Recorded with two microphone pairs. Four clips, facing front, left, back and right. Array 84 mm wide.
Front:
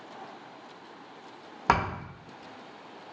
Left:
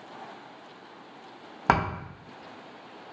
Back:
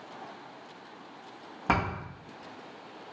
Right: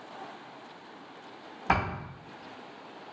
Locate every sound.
1.7 s a thud: 65° left, 1.3 m